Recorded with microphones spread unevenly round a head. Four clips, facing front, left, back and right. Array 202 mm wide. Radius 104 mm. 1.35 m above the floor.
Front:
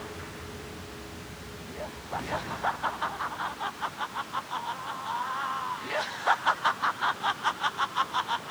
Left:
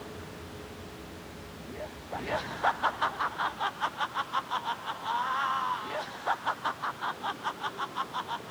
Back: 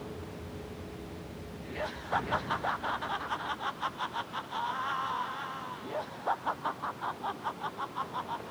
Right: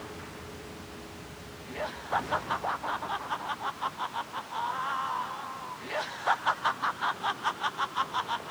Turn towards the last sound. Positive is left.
No sound to turn to.